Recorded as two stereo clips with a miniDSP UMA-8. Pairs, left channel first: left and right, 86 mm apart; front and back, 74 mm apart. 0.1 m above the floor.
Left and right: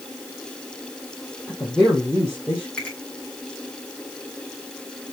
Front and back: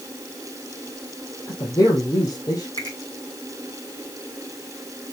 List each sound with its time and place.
1.5 s a woman speaking: 5° right, 3 m
2.8 s a finger snap: 15° left, 5 m